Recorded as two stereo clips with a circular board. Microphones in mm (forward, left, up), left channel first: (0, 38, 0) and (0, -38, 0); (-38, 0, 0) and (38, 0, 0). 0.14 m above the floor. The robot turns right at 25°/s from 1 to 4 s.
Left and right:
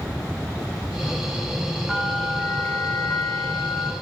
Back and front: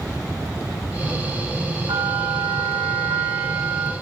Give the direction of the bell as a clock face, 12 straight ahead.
12 o'clock.